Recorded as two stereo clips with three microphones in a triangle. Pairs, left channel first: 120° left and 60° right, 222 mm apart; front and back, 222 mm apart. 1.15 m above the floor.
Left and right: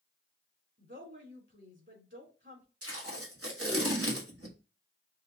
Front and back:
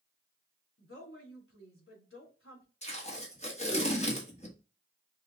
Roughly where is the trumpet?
No trumpet in this recording.